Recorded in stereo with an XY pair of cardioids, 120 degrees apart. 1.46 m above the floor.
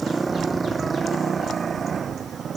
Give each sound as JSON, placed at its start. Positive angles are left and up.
{"t": 0.0, "sound": "a motorcycle", "azimuth_deg": -15}